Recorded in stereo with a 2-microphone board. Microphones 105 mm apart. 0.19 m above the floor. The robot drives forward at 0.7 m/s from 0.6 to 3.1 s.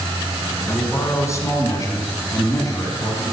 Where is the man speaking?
25° left (ahead or behind), 1.7 m; by 3.3 s 30° left (ahead or behind), 1.5 m.